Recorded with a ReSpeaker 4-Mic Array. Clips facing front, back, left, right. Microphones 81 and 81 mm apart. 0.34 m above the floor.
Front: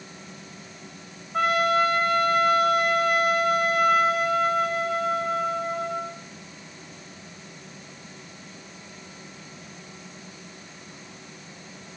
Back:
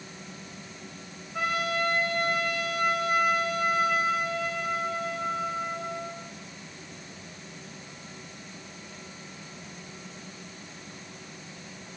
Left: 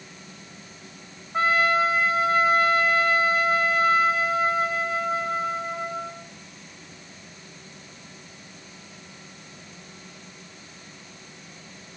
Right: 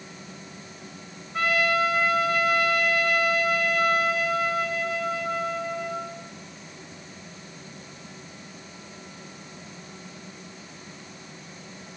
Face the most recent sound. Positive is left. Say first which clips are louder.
# front 8 dB, left 3 dB
turn(degrees=25)